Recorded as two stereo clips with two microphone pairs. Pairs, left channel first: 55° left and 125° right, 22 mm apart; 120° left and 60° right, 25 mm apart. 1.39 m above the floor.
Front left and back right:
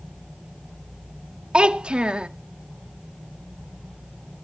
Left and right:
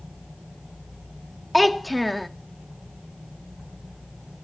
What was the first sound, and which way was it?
A child speaking, 150° right.